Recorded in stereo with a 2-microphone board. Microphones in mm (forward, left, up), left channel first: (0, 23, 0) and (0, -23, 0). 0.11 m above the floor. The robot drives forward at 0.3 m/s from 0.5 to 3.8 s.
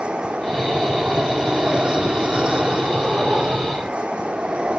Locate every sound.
0.0 s an aircraft: 20° right (ahead or behind)